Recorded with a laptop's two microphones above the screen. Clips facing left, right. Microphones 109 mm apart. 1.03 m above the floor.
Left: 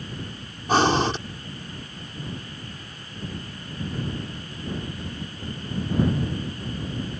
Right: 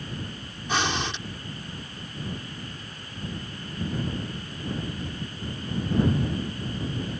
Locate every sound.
0.7 s breathing: 45° left (ahead or behind)